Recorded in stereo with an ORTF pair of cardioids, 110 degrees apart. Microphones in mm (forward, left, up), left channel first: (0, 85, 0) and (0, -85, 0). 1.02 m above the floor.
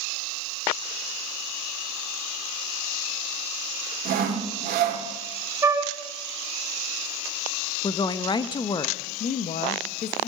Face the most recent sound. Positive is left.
turn(degrees=45)